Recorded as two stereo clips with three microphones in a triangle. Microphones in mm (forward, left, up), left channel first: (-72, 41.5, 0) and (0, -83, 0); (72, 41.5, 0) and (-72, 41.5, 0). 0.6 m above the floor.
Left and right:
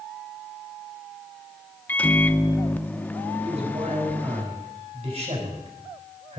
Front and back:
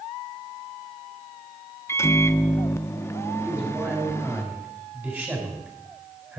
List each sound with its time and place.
1.9 s a microwave: 55° left, 0.5 m
3.4 s a man speaking: 105° right, 4.5 m